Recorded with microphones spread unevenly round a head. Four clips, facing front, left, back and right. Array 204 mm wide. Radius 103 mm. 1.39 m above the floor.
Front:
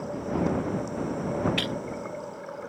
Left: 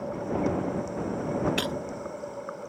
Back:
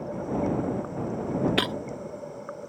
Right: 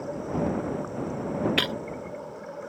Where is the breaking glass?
170° right.